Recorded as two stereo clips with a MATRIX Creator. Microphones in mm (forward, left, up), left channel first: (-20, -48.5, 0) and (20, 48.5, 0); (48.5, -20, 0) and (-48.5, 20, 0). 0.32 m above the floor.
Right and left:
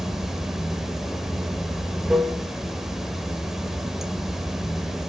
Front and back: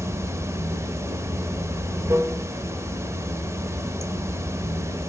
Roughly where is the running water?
Behind left.